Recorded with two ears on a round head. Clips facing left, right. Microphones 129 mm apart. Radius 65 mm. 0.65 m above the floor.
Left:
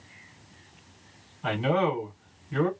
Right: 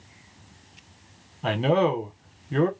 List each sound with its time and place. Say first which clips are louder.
1.4 s a man speaking: right 3 dB; 50° right (ahead or behind), 1.8 m